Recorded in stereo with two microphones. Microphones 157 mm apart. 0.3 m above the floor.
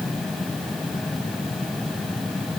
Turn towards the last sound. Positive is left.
No sound to turn to.